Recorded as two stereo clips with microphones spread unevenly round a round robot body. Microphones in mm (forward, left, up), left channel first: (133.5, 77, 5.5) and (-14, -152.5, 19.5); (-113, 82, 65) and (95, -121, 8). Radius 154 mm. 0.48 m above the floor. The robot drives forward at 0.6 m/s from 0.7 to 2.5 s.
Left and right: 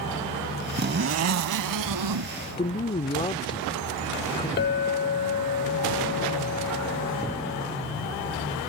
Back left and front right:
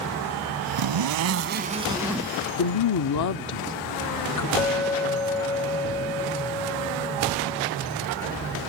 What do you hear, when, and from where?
0.8 s a zipper: 65° right; by 2.3 s 140° right
2.6 s a woman speaking: 125° left
4.6 s a clink: 40° left